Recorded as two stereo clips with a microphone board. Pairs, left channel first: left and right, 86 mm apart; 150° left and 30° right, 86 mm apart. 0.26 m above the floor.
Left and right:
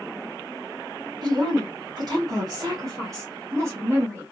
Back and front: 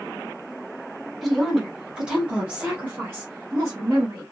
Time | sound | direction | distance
1.2 | a woman speaking | 120° right | 1.8 m